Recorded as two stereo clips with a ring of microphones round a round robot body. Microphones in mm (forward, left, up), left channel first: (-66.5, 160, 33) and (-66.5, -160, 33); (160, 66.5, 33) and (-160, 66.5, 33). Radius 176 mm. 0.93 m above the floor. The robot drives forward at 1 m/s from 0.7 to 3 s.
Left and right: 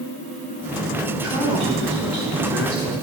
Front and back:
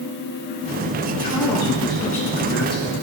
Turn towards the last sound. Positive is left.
turn(degrees=-70)